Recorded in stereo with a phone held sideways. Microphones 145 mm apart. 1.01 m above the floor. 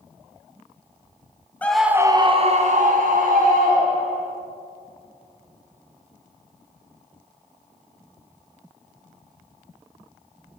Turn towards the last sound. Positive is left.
turn(degrees=-75)  # may be behind; listen again after turning